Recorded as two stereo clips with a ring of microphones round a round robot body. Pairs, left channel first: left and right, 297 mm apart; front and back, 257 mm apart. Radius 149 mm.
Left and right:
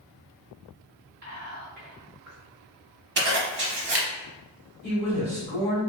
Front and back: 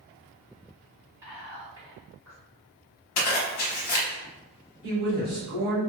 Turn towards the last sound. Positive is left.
turn(degrees=180)